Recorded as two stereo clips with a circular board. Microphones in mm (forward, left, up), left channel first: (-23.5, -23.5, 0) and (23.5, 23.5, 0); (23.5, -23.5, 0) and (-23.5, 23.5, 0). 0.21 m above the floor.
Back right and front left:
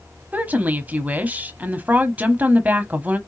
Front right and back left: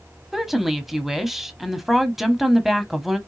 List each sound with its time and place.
0.3 s a woman speaking: 55° left, 1.0 m